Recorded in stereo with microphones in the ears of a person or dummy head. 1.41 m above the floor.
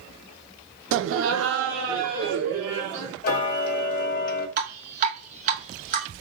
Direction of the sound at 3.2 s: 55° left (ahead or behind).